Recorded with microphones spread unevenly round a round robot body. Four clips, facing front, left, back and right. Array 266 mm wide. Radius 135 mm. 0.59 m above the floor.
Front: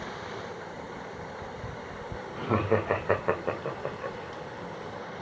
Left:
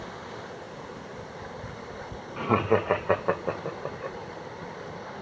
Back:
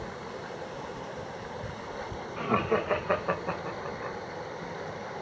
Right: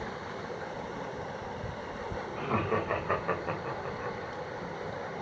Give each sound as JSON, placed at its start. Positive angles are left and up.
{"t": 2.4, "sound": "laughter", "azimuth_deg": 75, "distance_m": 2.0}